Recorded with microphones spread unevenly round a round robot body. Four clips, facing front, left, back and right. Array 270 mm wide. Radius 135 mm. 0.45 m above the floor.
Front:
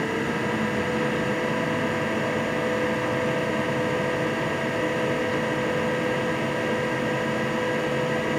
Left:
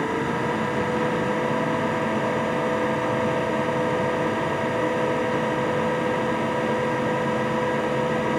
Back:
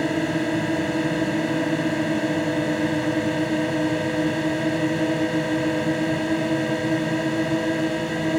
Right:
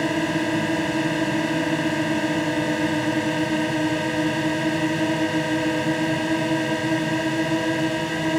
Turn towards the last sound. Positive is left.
turn(degrees=-135)